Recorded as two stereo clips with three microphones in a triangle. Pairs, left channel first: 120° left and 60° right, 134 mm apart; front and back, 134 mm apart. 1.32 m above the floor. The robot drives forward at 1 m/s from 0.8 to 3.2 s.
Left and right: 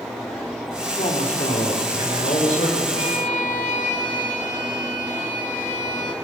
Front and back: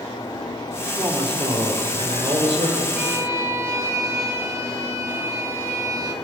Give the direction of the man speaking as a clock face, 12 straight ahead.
8 o'clock.